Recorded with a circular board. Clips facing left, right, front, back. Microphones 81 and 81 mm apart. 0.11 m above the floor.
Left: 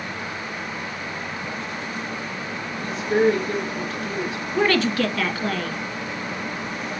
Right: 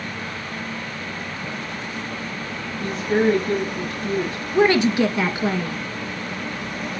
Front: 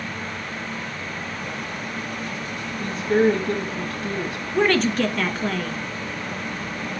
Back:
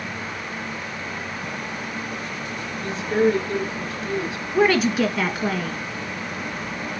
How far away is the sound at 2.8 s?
About 4 m.